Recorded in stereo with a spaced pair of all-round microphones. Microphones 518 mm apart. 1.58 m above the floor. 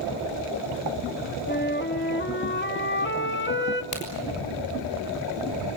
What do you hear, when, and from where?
1.5 s a flute: 20° left (ahead or behind), 1.5 m
3.9 s a crack: 45° left (ahead or behind), 6 m